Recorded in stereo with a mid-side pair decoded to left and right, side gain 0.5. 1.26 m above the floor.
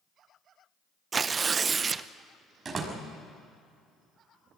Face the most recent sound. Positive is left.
turn(degrees=-35)